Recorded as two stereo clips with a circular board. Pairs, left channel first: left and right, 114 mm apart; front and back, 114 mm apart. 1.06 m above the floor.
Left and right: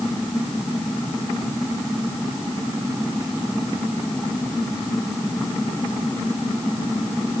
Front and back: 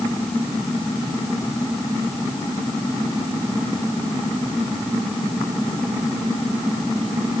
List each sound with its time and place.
Only background noise.